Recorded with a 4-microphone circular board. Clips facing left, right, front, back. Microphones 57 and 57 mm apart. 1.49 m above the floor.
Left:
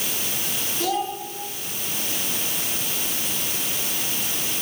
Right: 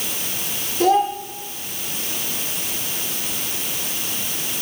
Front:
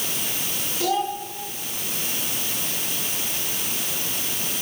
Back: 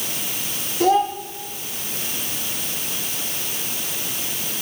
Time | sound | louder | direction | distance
0.8 | a child speaking | right 9 dB, back 7 dB | 135° right | 2.5 m